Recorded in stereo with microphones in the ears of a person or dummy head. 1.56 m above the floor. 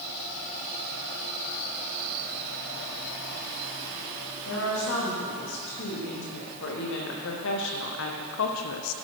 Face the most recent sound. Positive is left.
turn(degrees=90)